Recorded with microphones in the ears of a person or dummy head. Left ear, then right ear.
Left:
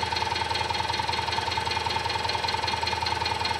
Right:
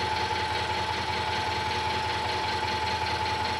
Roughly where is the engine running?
Centre.